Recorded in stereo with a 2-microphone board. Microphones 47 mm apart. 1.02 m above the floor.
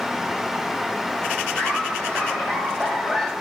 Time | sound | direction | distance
1.6 | laughter | 30° left (ahead or behind) | 3.5 m